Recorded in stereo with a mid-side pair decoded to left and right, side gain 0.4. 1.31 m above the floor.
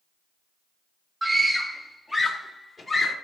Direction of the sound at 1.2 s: 15° right.